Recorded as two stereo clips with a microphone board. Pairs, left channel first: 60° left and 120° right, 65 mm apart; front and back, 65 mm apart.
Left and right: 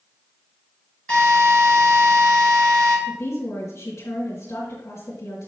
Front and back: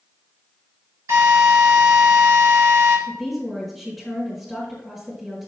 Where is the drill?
135° left, 3 m.